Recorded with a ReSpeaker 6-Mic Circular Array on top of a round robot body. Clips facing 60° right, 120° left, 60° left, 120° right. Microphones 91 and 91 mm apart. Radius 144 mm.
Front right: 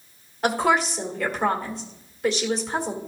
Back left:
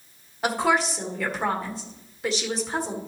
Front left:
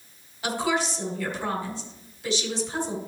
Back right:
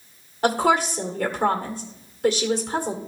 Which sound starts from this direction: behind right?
A woman speaking, at 0.4 s.